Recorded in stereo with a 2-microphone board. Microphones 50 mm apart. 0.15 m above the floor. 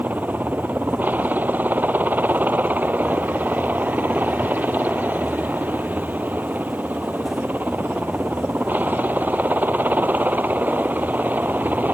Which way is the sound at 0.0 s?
35° right (ahead or behind).